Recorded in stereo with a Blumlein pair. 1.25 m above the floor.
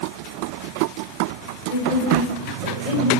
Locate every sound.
1.7 s a woman speaking: 35° left, 5.5 m